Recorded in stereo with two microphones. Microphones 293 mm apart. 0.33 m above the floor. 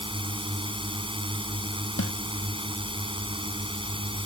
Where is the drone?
15° right (ahead or behind).